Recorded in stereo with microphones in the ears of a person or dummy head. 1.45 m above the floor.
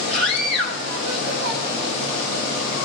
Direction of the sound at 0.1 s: 65° right (ahead or behind).